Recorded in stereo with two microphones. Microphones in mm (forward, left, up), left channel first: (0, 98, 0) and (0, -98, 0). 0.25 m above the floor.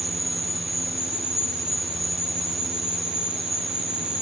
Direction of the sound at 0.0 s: 55° right (ahead or behind).